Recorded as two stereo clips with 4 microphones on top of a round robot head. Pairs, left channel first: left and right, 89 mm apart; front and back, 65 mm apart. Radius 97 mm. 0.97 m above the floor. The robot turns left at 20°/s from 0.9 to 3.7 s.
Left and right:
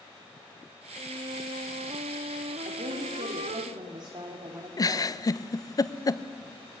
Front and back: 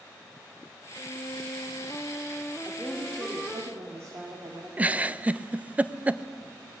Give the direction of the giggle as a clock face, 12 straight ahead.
8 o'clock.